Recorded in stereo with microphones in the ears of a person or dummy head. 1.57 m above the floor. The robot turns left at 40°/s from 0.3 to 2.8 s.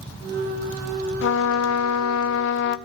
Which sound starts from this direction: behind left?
A trumpet, at 1.2 s.